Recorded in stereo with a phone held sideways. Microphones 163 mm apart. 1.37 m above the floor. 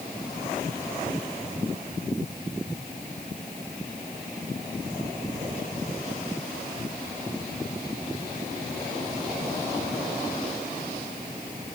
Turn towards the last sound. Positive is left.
No sound to turn to.